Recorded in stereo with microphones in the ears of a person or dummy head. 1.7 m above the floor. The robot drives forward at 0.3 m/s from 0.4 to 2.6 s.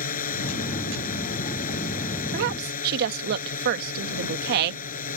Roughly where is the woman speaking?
Right.